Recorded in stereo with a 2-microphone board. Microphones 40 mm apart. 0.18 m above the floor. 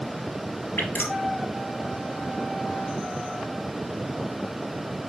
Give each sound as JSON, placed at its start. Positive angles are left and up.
{"t": 0.8, "sound": "dripping", "side_deg": 65, "distance_m": 3.0}